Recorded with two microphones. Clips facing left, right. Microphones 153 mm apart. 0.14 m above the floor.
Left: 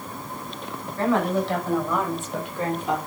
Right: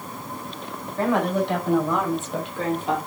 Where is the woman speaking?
15° right (ahead or behind), 6.5 m; by 3.0 s 25° right (ahead or behind), 4 m.